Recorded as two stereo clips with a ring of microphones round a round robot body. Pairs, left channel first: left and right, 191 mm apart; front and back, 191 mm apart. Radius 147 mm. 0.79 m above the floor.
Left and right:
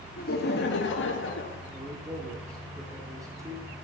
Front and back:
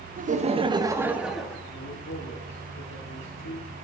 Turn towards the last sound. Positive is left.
turn(degrees=-20)